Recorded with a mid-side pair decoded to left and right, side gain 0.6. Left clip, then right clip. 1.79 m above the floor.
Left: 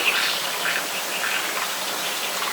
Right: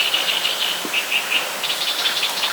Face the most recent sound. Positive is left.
No sound to turn to.